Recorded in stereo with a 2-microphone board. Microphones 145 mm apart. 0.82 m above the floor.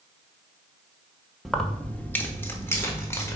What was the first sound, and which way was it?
Keys jangling, 5° left (ahead or behind).